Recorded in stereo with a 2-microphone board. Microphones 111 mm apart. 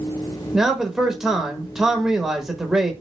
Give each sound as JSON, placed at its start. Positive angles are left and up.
{"t": 0.5, "sound": "a man speaking", "side_deg": -5, "distance_m": 0.8}